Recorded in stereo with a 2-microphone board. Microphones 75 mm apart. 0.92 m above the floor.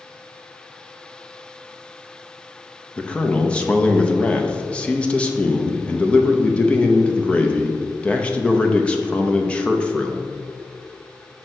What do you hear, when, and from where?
3.0 s a man speaking: 15° left (ahead or behind), 0.7 m